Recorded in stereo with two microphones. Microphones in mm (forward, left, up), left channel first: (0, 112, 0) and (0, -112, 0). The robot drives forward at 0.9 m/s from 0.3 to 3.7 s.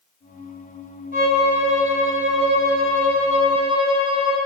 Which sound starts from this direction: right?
A violin, at 1.1 s.